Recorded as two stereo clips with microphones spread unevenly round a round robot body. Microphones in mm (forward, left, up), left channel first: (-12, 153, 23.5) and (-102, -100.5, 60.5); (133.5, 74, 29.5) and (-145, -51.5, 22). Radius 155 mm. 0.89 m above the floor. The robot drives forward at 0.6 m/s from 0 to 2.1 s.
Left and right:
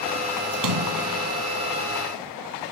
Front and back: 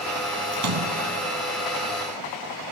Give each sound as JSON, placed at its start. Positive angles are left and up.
{"t": 0.5, "sound": "a splash", "azimuth_deg": -115, "distance_m": 3.0}